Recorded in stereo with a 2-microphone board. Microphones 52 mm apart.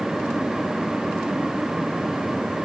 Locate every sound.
Only background noise.